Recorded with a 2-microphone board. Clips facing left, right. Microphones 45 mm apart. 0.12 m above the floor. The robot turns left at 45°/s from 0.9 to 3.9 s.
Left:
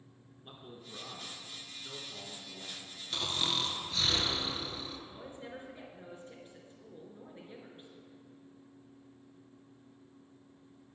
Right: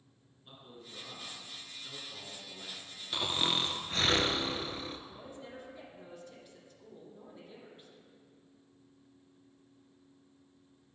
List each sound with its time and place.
0.4 s a man speaking: 20° left (ahead or behind), 1.3 m; by 3.0 s 20° right (ahead or behind), 1.3 m
3.1 s snoring: 20° right, 0.5 m; by 5.0 s 55° right, 0.5 m
5.1 s a woman speaking: 30° left (ahead or behind), 1.9 m